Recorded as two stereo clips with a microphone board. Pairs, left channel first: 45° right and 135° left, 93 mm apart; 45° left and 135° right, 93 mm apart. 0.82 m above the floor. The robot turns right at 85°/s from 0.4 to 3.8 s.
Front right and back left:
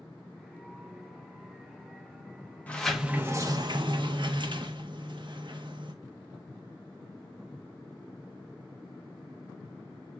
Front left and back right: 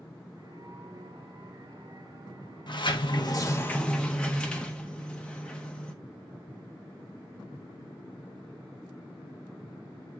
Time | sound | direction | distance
2.7 | a sliding door | 25° left | 0.9 m